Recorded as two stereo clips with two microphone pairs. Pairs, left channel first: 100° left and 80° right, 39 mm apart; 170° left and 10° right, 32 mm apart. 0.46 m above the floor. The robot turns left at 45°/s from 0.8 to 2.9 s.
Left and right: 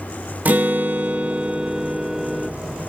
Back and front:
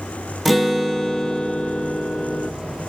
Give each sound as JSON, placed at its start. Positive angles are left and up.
{"t": 0.5, "sound": "a guitar", "azimuth_deg": -100, "distance_m": 0.8}